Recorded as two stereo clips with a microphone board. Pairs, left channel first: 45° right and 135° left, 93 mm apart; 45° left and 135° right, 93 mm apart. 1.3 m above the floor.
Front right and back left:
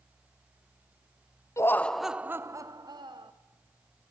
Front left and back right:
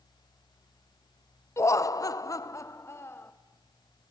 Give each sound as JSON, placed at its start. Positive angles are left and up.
{"t": 1.6, "sound": "laughter", "azimuth_deg": 0, "distance_m": 0.6}